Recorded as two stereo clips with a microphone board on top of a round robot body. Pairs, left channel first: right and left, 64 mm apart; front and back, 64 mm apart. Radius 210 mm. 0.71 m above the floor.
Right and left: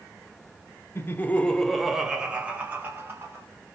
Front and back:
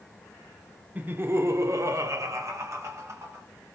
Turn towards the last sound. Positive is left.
turn(degrees=140)